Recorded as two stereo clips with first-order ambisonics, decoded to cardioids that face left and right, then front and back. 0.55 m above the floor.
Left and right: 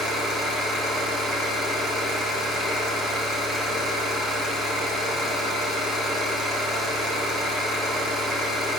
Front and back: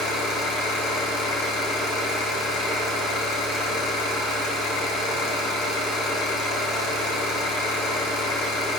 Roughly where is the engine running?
Ahead right.